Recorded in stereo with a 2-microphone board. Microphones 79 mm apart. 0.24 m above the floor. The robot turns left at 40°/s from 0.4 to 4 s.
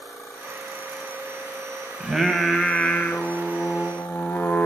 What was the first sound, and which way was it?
Singing, 165° right.